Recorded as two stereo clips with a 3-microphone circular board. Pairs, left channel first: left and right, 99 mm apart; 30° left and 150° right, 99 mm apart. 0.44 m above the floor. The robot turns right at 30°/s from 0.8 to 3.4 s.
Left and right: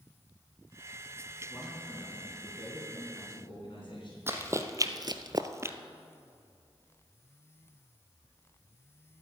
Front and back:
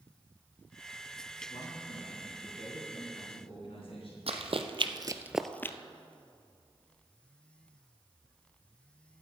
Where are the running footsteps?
155° right, 1.1 m; by 5.8 s 30° right, 0.7 m.